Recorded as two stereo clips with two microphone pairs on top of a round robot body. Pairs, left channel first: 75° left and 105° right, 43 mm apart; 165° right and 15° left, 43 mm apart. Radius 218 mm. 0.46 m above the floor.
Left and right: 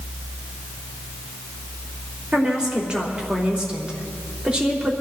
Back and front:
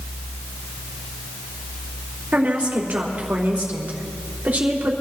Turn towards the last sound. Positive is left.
turn(degrees=-35)